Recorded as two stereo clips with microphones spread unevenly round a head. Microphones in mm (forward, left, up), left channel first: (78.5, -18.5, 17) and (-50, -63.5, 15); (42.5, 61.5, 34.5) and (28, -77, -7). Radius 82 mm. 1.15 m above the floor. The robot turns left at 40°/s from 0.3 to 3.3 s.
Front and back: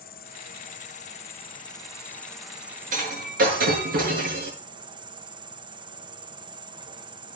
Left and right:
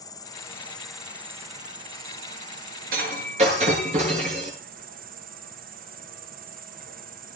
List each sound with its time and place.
0.0 s an insect: 15° left, 1.1 m; by 7.4 s 105° right, 1.1 m
2.9 s breaking glass: 135° right, 8 m; by 4.5 s 150° right, 8 m